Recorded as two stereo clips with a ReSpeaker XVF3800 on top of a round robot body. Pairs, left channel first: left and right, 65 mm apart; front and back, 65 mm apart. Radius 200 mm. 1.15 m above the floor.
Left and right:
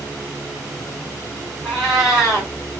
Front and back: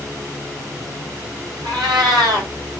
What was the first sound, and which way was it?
A cat meowing, 175° right.